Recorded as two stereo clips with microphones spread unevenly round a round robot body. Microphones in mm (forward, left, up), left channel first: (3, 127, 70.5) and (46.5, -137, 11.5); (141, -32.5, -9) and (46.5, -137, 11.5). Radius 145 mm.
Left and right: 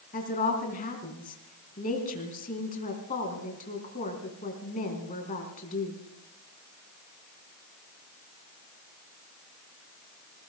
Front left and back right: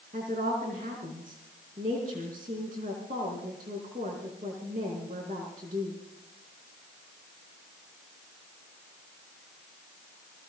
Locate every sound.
0.1 s a woman speaking: 165° left, 4 m